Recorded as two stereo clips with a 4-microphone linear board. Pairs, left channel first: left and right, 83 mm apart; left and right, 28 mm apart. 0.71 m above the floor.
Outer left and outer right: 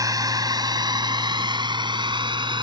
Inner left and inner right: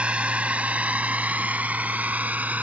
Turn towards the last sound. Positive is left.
turn(degrees=-80)